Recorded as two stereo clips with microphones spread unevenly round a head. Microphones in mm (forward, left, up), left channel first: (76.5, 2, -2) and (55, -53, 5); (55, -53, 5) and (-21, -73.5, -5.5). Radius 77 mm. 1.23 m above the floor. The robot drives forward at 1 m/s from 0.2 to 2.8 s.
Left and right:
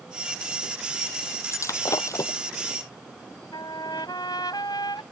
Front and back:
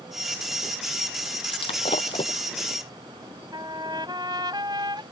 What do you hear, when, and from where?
1.5 s breaking glass: 40° left
3.5 s a trumpet: 130° left